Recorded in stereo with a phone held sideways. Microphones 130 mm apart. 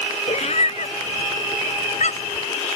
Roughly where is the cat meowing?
Left.